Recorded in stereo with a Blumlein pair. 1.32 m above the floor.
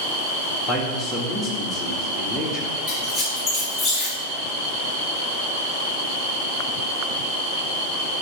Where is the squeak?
10° left, 3 m.